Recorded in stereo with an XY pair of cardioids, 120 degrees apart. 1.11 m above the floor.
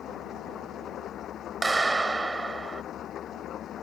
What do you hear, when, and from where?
0.0 s an engine running: 50° left
1.6 s a clap: 20° right